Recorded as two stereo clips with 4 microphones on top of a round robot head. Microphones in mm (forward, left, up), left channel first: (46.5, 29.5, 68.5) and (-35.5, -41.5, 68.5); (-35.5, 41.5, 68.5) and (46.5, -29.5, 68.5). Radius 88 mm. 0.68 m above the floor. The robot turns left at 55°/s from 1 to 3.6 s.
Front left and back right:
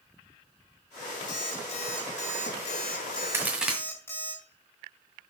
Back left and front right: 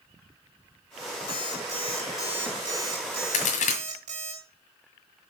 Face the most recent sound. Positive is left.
turn(degrees=135)